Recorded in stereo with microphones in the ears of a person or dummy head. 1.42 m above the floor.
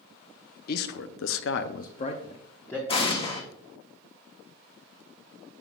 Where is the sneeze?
I don't hear a sneeze.